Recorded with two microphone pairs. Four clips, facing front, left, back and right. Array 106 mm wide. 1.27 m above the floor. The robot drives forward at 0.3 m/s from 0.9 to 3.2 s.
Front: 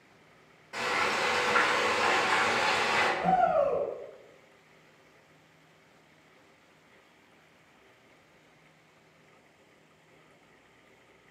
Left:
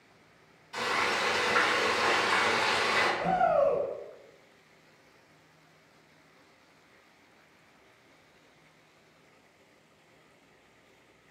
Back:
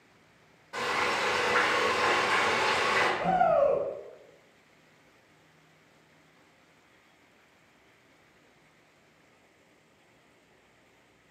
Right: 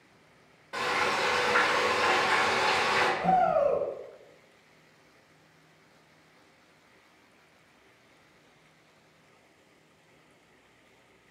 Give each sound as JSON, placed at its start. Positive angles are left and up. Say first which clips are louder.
{"t": 0.7, "sound": "frying", "louder": "right 2 dB, even", "azimuth_deg": -95, "distance_m": 1.2}
{"t": 3.2, "sound": "a shout", "louder": "right 1 dB, back 1 dB", "azimuth_deg": -175, "distance_m": 1.9}